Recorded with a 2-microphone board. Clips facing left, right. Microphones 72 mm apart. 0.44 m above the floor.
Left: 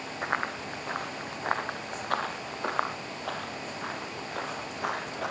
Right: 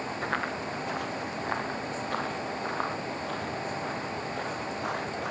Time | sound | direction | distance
0.2 | running footsteps | 20° left (ahead or behind) | 3.5 m